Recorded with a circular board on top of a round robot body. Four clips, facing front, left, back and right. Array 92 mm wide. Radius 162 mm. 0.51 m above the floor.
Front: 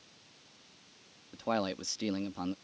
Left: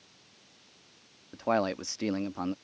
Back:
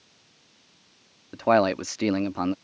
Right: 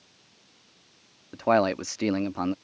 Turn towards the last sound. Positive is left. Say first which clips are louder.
# right 6 dB, back 13 dB
turn(degrees=-155)